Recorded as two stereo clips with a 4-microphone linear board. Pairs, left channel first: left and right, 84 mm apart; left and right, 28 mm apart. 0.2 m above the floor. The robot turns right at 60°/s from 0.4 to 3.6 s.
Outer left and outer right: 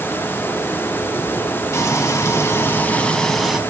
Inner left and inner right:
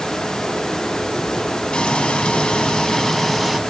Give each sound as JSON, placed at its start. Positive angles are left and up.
{"t": 1.7, "sound": "frying", "azimuth_deg": 70, "distance_m": 1.3}